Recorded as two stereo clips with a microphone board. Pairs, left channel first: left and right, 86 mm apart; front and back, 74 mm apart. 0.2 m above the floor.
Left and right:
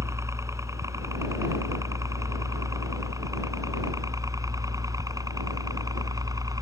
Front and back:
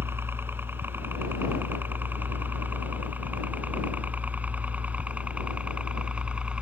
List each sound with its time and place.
0.0 s a helicopter: 130° right; by 6.6 s 110° right